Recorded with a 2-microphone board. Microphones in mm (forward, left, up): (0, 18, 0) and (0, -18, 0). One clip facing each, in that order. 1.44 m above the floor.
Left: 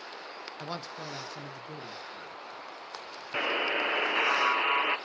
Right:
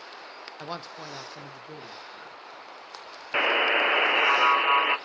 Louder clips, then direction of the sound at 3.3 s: Right 6 dB; 35° right (ahead or behind).